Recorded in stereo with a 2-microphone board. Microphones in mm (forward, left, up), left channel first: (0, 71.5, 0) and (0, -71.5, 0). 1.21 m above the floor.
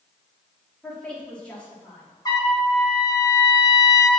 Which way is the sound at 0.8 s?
5° left (ahead or behind).